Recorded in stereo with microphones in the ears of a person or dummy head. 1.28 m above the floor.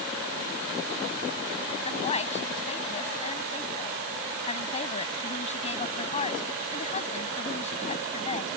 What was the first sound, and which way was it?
A woman speaking, 35° left (ahead or behind).